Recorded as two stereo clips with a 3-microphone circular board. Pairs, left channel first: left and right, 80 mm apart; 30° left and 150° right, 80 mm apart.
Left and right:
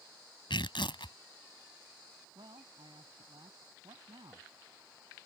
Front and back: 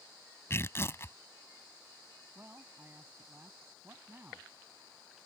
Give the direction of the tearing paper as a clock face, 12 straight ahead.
9 o'clock.